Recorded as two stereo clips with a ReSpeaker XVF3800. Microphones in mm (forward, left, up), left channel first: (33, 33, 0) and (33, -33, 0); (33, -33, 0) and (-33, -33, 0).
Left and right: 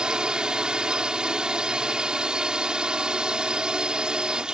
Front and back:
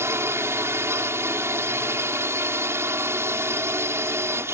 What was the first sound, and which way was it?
A drone, 160° right.